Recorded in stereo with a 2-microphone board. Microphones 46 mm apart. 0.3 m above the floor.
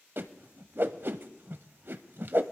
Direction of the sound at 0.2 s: 55° right (ahead or behind).